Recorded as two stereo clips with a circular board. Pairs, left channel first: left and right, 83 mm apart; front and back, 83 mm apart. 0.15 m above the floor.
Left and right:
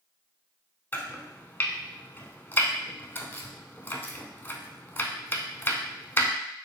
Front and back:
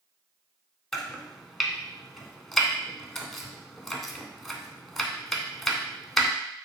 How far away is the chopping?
About 0.6 m.